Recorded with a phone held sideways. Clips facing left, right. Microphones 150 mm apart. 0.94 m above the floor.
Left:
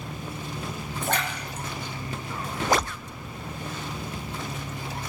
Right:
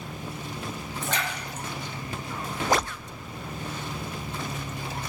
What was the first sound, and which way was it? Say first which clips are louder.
A splash: left 3 dB; 55° left (ahead or behind).